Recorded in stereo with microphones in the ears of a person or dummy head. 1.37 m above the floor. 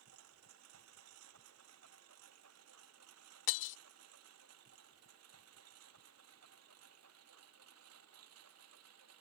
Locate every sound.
0.0 s a lawn mower: 85° right
3.5 s breaking glass: 70° left (ahead or behind)